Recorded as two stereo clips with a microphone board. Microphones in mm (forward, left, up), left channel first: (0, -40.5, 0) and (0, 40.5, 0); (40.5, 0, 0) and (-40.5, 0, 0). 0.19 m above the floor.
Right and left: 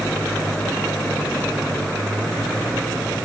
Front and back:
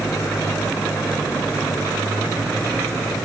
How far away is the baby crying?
I don't hear a baby crying.